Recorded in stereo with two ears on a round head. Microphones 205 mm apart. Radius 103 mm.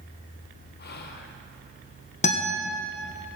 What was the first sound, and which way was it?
Whispering, 45° left (ahead or behind).